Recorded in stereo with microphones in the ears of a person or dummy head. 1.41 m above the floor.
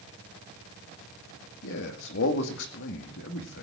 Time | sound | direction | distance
1.6 | a man speaking | 60° left (ahead or behind) | 2 m